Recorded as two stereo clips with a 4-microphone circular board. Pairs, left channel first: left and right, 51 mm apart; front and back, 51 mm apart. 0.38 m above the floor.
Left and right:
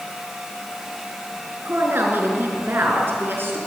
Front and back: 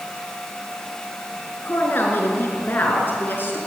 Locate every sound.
1.6 s a woman speaking: 50° right, 5.5 m